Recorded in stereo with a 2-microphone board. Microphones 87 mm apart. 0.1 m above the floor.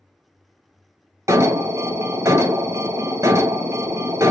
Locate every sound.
1.3 s an alarm: 35° right (ahead or behind), 0.9 m